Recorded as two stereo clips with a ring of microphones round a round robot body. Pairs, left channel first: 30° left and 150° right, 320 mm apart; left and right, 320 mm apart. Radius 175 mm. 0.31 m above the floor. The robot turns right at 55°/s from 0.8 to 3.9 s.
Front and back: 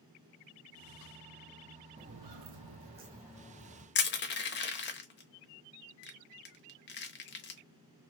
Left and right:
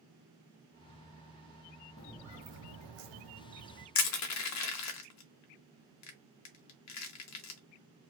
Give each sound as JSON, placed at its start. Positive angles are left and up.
{"t": 2.0, "sound": "footsteps", "azimuth_deg": 140, "distance_m": 0.5}
{"t": 4.0, "sound": "crushing", "azimuth_deg": 80, "distance_m": 0.9}